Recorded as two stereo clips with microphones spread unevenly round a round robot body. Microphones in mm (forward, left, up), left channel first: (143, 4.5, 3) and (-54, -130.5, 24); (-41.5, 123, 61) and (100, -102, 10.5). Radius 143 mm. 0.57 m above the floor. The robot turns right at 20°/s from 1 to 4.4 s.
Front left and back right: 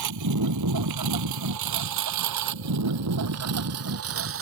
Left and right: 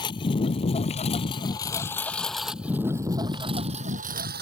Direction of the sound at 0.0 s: 165° right.